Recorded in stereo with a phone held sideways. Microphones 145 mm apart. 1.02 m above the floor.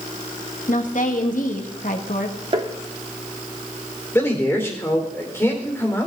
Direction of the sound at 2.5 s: 40° right (ahead or behind).